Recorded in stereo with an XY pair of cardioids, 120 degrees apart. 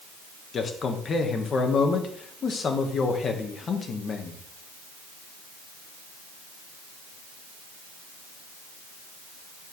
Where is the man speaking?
40° left, 1.4 m.